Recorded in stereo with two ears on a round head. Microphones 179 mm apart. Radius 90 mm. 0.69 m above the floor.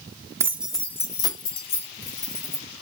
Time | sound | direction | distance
0.4 | keys jangling | 15° right (ahead or behind) | 0.5 m